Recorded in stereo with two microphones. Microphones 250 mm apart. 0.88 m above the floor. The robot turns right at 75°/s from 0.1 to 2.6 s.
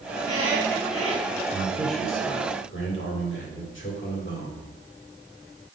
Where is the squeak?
5° left, 2.5 m; by 1.4 s 100° left, 2.5 m.